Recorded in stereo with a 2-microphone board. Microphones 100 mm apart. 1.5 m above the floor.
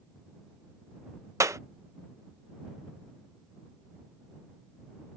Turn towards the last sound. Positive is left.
turn(degrees=-30)  # may be behind; listen again after turning